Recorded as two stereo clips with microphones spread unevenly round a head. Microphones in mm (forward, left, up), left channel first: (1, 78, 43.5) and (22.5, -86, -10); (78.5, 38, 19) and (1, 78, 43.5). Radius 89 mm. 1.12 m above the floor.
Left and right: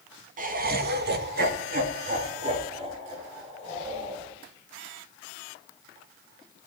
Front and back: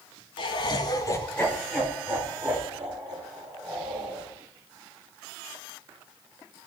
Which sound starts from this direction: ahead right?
Laughter, at 0.4 s.